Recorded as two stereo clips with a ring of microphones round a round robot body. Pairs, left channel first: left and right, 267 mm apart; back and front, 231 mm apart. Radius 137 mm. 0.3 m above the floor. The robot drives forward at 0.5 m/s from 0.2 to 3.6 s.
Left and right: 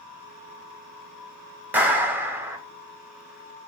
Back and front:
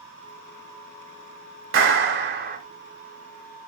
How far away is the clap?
About 1.1 m.